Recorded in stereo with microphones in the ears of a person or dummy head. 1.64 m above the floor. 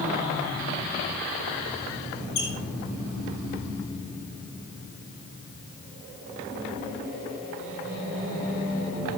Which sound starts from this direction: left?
A squeak, at 2.4 s.